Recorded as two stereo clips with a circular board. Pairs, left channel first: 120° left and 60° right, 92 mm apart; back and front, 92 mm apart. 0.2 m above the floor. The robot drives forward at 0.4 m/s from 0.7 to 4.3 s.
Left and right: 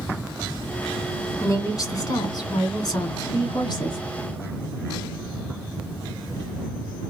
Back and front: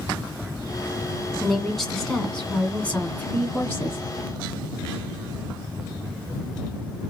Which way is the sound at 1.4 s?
85° left.